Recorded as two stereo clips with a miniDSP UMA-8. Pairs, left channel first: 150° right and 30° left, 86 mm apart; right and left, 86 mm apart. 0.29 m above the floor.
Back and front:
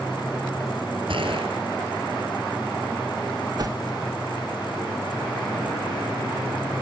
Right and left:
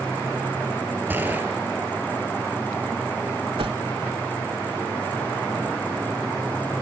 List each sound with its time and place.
1.1 s a gunshot: 20° left, 3.5 m
3.6 s a whoosh: 75° left, 0.5 m